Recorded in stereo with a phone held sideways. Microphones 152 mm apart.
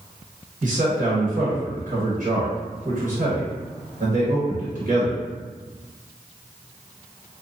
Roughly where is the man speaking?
Right.